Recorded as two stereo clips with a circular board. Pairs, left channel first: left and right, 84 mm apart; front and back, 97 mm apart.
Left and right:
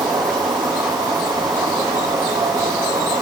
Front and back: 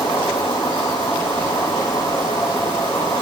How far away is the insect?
About 9 m.